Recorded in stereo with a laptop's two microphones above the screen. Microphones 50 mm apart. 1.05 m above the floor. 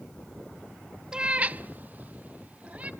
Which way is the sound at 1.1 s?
15° right (ahead or behind).